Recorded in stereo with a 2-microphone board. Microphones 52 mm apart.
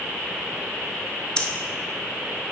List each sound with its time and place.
1.4 s breathing: 15° left (ahead or behind), 0.7 m